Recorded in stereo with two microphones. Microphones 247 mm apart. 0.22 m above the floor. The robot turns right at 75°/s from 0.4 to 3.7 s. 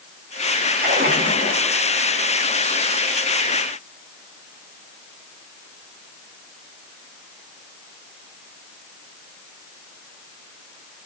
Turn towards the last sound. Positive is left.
turn(degrees=75)